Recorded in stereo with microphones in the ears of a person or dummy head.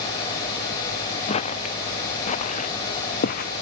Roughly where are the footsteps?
Left.